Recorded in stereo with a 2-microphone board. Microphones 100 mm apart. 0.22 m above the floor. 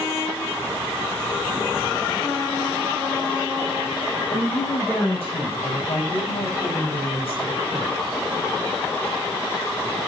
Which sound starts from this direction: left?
A woman speaking, at 4.3 s.